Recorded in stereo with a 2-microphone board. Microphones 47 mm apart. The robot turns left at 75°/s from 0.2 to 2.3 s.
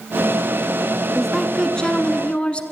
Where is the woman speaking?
5° right (ahead or behind), 1.3 m; by 2.6 s 25° left (ahead or behind), 1.3 m.